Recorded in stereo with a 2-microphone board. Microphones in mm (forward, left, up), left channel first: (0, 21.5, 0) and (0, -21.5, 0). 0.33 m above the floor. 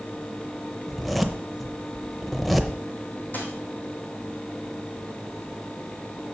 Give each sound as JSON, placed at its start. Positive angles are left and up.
{"t": 0.9, "sound": "a zipper", "side_deg": 0, "distance_m": 0.7}
{"t": 3.3, "sound": "a dropped coin", "side_deg": 45, "distance_m": 2.0}